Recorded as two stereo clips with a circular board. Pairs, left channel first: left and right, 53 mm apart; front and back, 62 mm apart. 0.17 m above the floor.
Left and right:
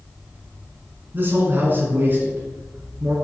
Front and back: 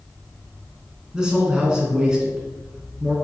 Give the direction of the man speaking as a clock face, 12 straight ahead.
4 o'clock.